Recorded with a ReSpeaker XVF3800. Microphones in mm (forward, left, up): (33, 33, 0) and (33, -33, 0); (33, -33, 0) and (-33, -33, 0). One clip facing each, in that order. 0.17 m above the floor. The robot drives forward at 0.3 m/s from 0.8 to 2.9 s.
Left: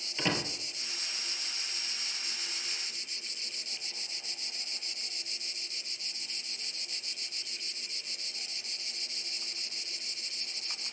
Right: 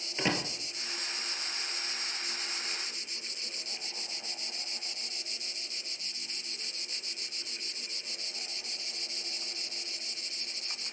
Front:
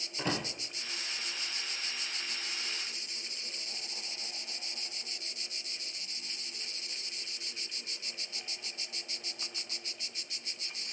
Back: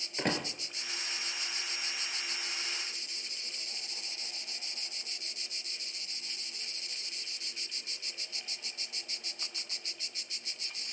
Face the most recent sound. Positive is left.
turn(degrees=-160)